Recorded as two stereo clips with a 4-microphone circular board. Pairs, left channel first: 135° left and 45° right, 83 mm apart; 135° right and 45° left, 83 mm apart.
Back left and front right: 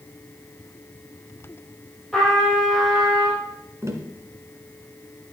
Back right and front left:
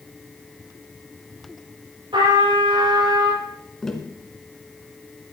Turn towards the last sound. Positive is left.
turn(degrees=-55)